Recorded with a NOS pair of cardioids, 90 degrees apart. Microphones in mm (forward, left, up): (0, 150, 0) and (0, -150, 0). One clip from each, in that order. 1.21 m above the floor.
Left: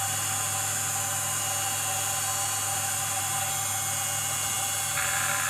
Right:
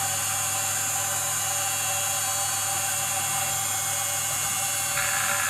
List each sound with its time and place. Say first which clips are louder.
0.0 s a machine running: right 2 dB; 15° right, 1.4 m